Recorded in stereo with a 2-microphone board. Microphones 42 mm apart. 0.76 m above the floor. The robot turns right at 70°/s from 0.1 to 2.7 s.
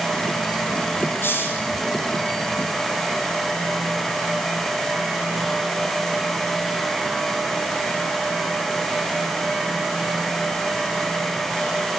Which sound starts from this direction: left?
A hiss, at 1.2 s.